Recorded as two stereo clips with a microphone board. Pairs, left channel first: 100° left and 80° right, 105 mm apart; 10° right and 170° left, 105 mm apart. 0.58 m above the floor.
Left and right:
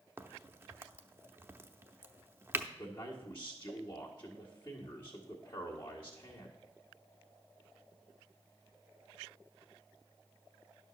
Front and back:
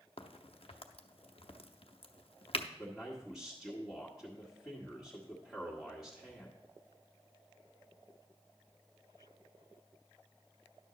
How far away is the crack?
About 0.6 m.